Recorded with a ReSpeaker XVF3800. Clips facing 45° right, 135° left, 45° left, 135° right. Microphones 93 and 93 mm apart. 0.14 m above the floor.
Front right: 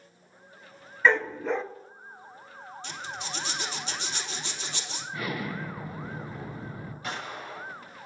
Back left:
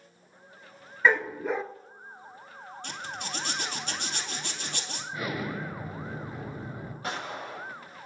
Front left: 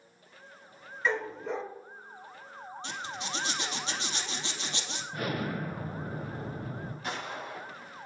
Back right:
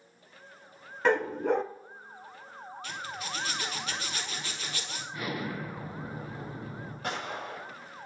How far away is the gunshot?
About 6.5 m.